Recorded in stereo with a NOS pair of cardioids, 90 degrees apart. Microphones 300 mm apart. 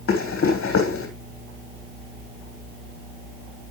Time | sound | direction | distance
0.1 | running footsteps | 45° left | 3.5 m